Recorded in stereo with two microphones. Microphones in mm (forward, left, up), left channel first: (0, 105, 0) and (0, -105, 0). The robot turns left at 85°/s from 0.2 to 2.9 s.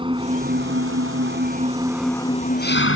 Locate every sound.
0.0 s an engine running: 25° right; by 3.0 s 105° left